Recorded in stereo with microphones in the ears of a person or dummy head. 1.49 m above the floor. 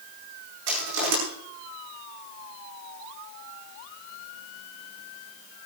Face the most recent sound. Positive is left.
turn(degrees=-75)  # may be behind; listen again after turning